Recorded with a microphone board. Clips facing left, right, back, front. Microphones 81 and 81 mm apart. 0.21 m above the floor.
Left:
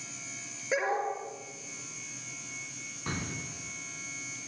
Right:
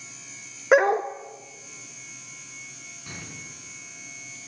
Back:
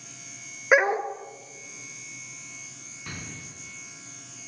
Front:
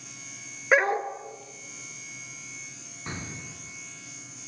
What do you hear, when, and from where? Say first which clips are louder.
0.7 s a dog barking: right 11 dB, back 2 dB; 100° right, 1.5 m
3.1 s an explosion: left 5 dB, front 3 dB; 65° left, 2.5 m